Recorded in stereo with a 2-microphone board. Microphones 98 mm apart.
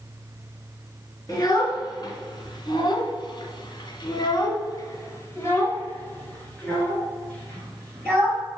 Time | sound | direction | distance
1.3 | a child speaking | 40° left (ahead or behind) | 2 m